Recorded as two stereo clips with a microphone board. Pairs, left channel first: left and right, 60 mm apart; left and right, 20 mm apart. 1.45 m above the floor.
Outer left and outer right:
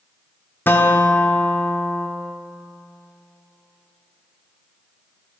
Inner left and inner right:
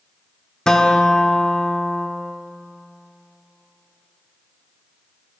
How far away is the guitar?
About 0.6 m.